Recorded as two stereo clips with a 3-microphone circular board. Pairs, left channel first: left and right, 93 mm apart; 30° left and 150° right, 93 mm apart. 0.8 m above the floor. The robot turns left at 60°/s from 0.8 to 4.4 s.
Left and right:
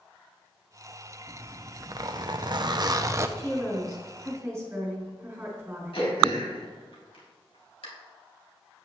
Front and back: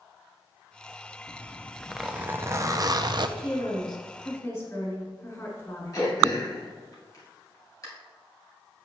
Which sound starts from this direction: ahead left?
A woman speaking, at 3.4 s.